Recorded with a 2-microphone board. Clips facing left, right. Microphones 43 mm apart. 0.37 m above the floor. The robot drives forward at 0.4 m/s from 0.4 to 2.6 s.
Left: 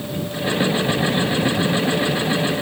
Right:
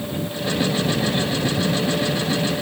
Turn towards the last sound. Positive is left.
No sound to turn to.